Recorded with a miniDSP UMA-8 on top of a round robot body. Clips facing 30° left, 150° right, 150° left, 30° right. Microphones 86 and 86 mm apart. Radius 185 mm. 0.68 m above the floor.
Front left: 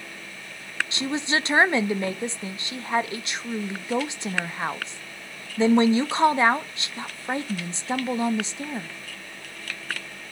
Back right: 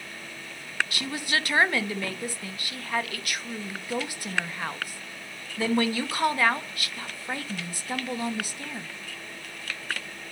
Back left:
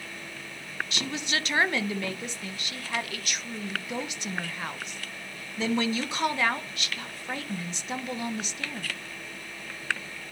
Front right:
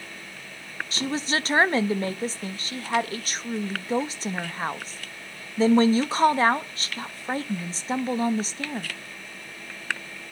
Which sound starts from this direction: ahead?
A woman speaking, at 0.9 s.